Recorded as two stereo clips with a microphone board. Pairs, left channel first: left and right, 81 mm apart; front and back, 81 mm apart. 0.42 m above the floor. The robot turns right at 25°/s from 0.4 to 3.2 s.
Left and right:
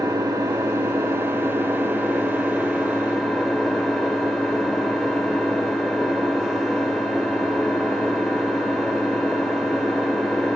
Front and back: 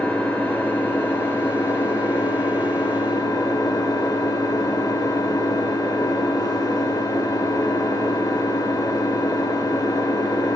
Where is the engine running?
70° right, 1.0 m; by 10.6 s straight ahead, 1.0 m.